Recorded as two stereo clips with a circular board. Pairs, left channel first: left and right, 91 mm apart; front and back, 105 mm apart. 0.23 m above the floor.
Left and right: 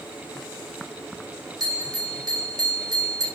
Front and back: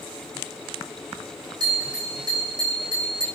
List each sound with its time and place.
1.6 s a bell: 135° right, 5 m